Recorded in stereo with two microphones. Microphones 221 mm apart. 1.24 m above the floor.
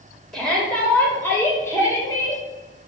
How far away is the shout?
About 4.5 m.